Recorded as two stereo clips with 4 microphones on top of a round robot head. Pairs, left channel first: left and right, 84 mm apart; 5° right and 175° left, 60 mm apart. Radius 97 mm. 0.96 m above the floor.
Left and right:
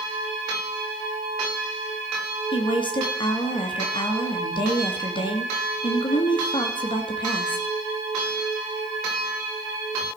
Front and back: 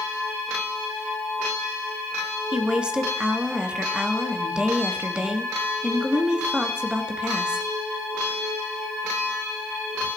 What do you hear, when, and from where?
2.5 s a woman speaking: 100° left, 2.0 m